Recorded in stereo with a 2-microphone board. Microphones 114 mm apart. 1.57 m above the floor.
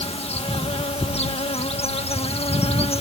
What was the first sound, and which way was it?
An insect, 60° left (ahead or behind).